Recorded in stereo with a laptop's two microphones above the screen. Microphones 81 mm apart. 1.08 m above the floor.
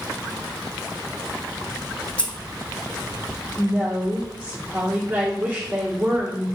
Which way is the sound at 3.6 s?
20° right (ahead or behind).